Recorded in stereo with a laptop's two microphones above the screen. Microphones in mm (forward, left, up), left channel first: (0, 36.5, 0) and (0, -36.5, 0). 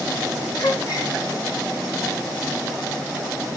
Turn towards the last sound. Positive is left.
turn(degrees=55)  # may be behind; listen again after turning